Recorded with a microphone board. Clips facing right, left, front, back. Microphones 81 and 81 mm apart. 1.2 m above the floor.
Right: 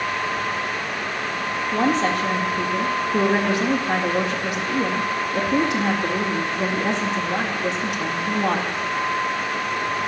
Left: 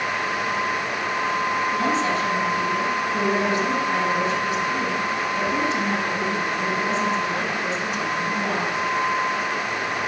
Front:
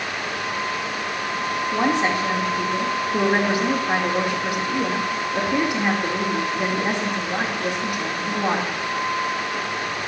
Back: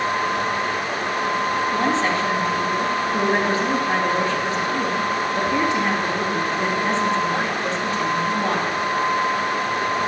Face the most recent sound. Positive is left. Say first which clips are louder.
# right 2 dB, front 3 dB
turn(degrees=-75)